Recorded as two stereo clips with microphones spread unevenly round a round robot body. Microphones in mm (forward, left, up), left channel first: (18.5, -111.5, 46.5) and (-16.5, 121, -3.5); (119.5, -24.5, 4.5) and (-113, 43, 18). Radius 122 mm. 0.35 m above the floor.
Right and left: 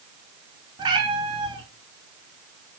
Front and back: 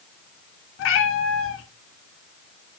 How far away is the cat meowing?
About 0.7 m.